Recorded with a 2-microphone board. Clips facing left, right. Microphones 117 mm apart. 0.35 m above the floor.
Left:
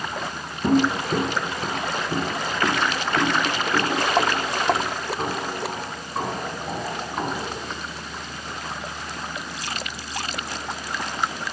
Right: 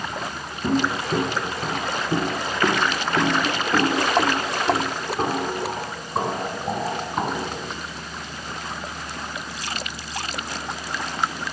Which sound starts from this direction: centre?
Footsteps, at 0.6 s.